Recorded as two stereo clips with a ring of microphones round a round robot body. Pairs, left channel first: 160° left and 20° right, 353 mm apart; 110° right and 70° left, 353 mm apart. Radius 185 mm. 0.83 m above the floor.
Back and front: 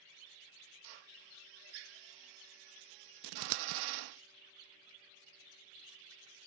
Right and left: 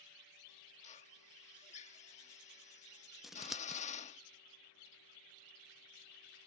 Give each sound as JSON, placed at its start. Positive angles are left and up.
{"t": 0.8, "sound": "a drill", "azimuth_deg": -40}
{"t": 3.2, "sound": "scissors", "azimuth_deg": -20}